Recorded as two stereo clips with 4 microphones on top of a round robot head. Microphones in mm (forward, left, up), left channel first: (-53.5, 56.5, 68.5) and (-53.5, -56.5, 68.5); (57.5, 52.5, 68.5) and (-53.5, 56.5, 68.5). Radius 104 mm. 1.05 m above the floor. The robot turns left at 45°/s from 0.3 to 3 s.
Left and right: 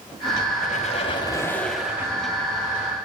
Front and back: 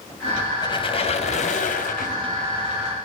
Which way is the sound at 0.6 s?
50° left.